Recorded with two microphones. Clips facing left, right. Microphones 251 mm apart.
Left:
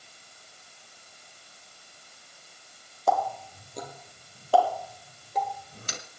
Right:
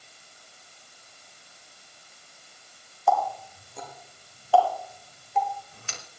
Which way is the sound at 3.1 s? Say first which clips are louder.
Right 1 dB; 40° left (ahead or behind).